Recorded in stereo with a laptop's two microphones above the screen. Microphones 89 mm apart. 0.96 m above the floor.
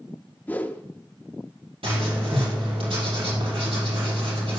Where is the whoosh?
20° left (ahead or behind), 0.5 m.